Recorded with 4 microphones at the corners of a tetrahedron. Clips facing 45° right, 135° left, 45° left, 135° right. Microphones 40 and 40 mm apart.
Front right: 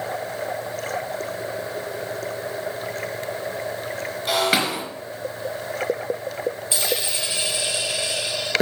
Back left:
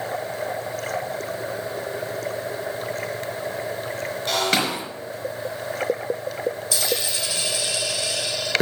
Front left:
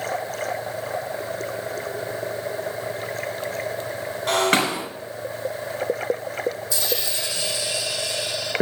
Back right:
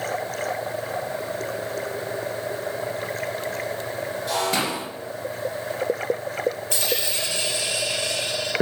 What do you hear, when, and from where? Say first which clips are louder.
4.3 s breaking glass: front right 2 dB, front left 5 dB; 30° left, 2.5 m
6.7 s a dropped coin: even, back right 1 dB; 105° right, 2.5 m